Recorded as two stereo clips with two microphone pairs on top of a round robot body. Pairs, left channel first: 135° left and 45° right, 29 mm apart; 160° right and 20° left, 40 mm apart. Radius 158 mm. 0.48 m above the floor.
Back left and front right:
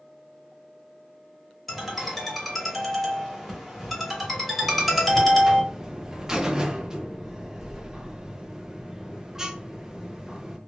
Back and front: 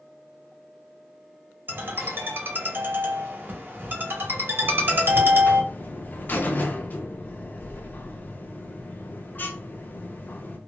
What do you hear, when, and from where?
1.7 s a ringtone: 40° left, 1.6 m
4.6 s a buzzer: 115° right, 0.5 m